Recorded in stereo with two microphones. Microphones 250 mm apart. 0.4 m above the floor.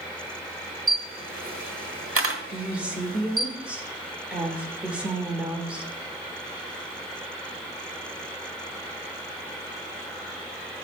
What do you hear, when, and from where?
0.9 s a camera shutter: 60° right (ahead or behind), 1.1 m
2.5 s a woman speaking: 5° right (ahead or behind), 1.2 m